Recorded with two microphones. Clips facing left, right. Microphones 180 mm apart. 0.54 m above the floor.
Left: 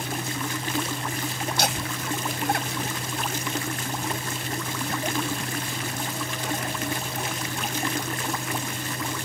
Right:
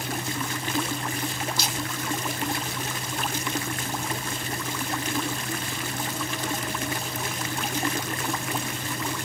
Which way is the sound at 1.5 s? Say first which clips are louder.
Left 3 dB; 65° left (ahead or behind).